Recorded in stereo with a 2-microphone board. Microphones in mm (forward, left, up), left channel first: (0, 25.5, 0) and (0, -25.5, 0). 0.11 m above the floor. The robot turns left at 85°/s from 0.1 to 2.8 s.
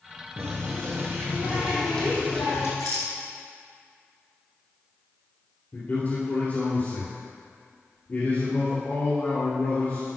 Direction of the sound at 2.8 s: 75° left (ahead or behind).